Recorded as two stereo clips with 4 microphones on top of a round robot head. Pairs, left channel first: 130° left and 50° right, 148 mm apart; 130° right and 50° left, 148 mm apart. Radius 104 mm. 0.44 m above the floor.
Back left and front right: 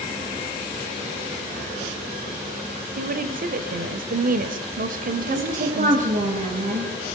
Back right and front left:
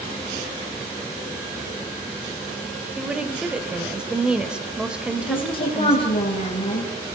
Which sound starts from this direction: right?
A woman speaking, at 5.2 s.